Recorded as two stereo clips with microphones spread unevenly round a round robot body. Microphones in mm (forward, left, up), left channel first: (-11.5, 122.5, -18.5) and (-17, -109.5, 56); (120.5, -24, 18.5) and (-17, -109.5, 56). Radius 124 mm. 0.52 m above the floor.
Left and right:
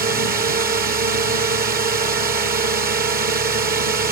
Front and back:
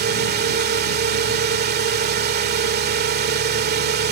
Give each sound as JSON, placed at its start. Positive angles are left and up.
{"t": 0.0, "sound": "a drone", "azimuth_deg": -150}